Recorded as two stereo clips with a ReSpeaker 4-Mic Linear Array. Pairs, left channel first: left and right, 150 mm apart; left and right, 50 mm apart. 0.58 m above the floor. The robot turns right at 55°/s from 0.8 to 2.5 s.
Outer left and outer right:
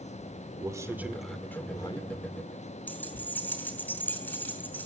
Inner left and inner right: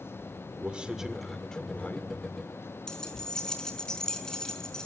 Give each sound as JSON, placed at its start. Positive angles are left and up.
{"t": 0.6, "sound": "a man speaking", "azimuth_deg": -25, "distance_m": 2.0}
{"t": 2.9, "sound": "keys jangling", "side_deg": 15, "distance_m": 5.0}